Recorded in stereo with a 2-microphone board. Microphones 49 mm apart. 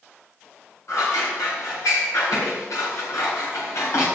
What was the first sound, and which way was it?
Scissors, 75° left (ahead or behind).